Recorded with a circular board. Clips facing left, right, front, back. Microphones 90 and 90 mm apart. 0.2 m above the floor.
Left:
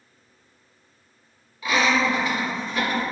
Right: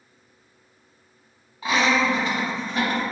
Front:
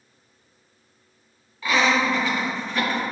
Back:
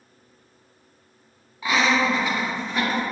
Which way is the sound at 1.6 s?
120° right.